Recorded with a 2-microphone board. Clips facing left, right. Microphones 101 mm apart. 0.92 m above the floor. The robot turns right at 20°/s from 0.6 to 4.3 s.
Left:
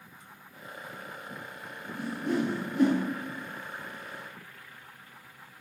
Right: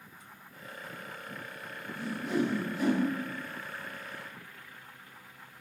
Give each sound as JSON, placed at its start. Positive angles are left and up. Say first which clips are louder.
{"t": 1.9, "sound": "a whoosh", "louder": "left 1 dB", "side_deg": 45, "distance_m": 1.9}